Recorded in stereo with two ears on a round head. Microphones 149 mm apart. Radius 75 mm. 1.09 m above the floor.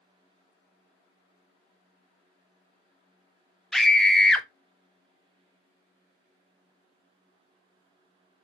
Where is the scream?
Centre (ahead or behind), 0.7 m.